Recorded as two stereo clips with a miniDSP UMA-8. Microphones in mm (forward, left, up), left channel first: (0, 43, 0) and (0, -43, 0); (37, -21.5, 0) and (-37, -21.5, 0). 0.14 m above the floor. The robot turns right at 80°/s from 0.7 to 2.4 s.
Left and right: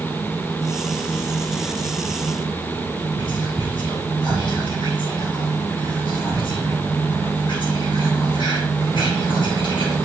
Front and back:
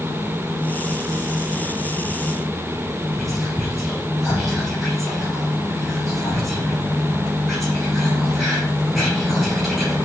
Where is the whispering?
85° left, 3 m.